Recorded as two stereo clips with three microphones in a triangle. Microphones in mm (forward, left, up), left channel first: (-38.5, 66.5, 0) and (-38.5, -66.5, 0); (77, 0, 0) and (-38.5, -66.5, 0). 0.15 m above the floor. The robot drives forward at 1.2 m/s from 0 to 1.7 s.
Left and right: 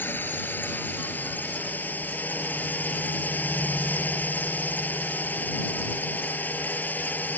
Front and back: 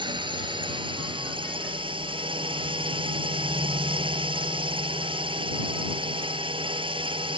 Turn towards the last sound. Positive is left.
turn(degrees=165)